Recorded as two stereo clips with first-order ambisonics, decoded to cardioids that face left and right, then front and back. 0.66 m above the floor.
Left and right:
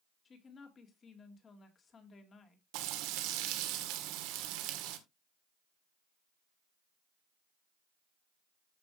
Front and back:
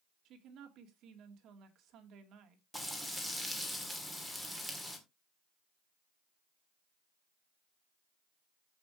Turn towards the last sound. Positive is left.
turn(degrees=-85)